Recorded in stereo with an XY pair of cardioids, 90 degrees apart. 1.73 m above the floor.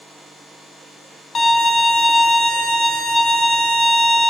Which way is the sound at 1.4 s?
45° left.